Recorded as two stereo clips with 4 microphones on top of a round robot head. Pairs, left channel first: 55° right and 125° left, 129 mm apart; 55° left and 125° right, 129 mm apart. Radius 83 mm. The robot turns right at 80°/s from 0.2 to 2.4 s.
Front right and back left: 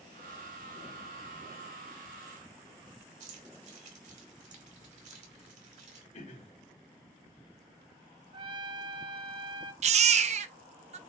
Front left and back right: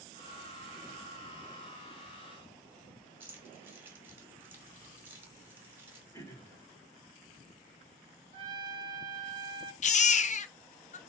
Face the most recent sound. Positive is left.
turn(degrees=85)